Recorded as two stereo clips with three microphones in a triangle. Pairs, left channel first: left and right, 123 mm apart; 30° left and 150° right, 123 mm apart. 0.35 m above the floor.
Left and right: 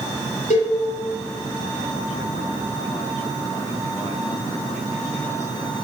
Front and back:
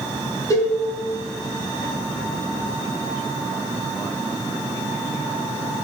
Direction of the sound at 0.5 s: 90° left.